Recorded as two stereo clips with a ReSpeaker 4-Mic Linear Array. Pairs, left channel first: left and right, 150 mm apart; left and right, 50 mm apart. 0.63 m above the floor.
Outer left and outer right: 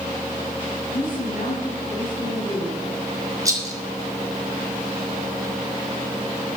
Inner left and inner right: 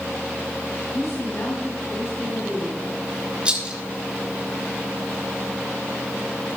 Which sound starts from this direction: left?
A woman speaking, at 0.9 s.